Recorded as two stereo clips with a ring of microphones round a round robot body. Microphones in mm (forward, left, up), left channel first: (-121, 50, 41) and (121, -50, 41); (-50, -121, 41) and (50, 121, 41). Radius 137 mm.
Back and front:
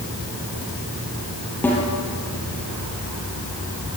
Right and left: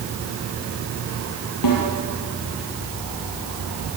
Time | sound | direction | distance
1.6 | a snare drum | 120° right | 6.5 m